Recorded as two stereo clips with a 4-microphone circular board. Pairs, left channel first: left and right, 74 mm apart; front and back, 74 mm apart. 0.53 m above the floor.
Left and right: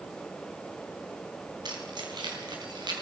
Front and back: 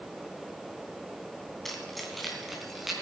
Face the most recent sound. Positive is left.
turn(degrees=-90)